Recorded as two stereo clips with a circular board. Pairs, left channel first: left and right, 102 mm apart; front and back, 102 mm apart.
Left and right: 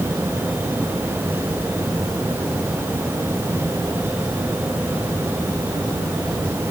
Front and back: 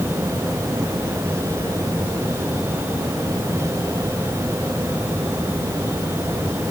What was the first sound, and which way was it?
Only background noise.